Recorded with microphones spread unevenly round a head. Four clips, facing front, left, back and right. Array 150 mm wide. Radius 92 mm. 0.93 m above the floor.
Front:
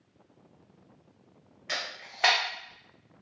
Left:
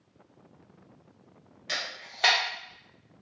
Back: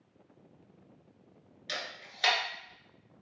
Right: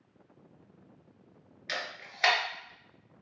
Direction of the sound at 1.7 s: 20° left.